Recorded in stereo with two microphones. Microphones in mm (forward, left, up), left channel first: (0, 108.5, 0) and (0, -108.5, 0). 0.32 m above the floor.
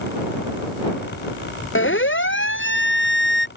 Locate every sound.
1.8 s a siren: 65° left (ahead or behind); by 3.5 s 60° left (ahead or behind)